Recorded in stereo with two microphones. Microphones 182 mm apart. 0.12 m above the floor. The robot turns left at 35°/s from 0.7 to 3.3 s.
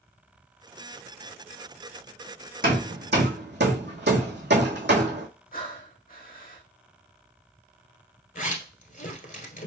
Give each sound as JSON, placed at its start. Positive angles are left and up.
{"t": 2.6, "sound": "hammering", "side_deg": -50, "distance_m": 1.6}
{"t": 5.5, "sound": "breathing", "side_deg": 50, "distance_m": 1.5}
{"t": 8.3, "sound": "a zipper", "side_deg": 50, "distance_m": 1.1}